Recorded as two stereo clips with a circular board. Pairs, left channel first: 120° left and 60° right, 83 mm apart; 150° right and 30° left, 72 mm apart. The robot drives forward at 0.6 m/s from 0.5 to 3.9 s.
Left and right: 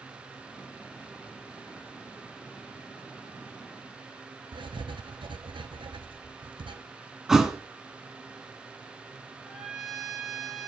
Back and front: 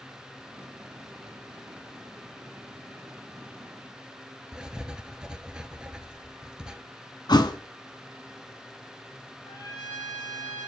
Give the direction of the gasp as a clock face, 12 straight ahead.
I don't hear a gasp.